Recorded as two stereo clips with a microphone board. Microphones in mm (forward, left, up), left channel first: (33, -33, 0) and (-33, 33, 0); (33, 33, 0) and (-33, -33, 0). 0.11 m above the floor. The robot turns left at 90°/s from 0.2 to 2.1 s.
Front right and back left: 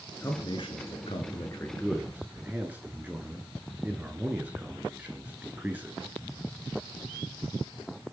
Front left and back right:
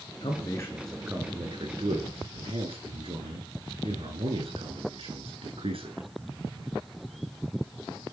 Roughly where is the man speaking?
Ahead.